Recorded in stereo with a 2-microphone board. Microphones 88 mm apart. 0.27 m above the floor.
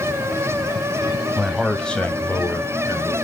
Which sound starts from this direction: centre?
A man speaking, at 1.4 s.